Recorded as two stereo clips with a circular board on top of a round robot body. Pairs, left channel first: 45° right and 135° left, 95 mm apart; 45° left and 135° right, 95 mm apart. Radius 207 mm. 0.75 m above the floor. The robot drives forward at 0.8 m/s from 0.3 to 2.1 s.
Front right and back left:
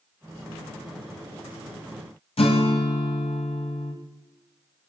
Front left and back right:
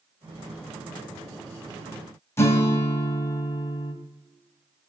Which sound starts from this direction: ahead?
A guitar, at 2.4 s.